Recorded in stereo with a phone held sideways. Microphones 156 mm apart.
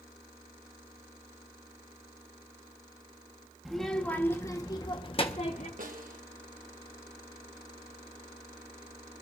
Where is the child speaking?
Centre (ahead or behind), 1.3 m; by 5.7 s 45° left (ahead or behind), 1.5 m.